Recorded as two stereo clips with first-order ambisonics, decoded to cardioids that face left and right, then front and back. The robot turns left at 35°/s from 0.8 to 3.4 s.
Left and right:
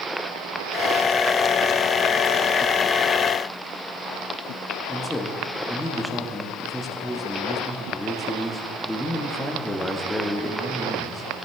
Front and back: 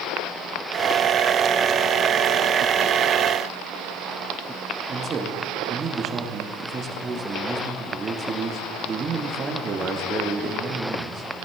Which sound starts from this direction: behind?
A man speaking, at 4.9 s.